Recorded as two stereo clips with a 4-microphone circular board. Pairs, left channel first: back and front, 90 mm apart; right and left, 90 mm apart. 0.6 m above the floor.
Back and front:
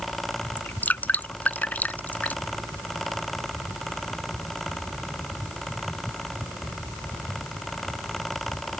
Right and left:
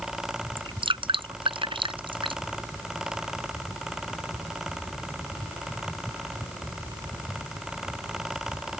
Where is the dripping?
110° left.